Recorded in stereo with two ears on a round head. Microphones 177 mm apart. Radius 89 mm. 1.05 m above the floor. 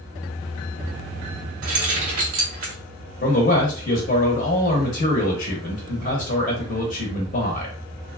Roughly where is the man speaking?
Left.